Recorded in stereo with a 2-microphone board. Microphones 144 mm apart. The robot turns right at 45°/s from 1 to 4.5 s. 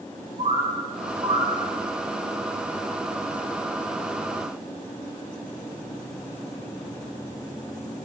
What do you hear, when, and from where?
0.4 s a bird: 55° right (ahead or behind), 8 m; by 1.5 s 35° right (ahead or behind), 8 m